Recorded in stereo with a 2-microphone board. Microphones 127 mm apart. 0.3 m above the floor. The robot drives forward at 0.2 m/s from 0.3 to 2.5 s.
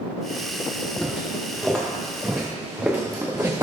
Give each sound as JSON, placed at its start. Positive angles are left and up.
{"t": 1.0, "sound": "footsteps", "side_deg": 5, "distance_m": 3.0}